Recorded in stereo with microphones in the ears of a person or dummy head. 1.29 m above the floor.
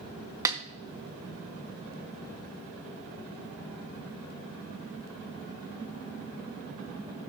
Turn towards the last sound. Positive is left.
turn(degrees=-15)  # may be behind; listen again after turning